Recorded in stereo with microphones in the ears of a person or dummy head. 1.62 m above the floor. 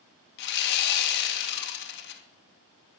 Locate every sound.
0.4 s sawing: 60° left (ahead or behind), 2.5 m